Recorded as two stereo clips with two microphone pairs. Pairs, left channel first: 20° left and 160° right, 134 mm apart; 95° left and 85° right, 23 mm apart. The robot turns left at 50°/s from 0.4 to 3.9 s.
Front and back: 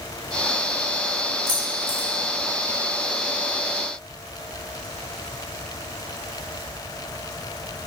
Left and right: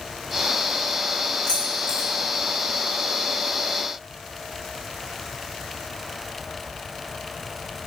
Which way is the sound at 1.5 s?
150° left.